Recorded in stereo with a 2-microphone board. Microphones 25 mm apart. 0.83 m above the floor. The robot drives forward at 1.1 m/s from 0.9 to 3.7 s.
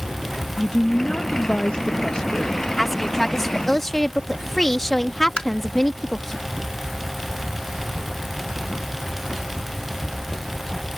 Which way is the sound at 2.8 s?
10° left (ahead or behind).